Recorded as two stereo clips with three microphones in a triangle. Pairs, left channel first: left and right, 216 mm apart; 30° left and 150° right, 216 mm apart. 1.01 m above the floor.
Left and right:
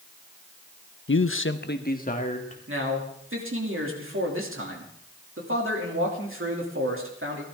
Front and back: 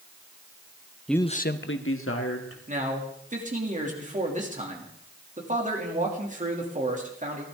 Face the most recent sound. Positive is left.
turn(degrees=-95)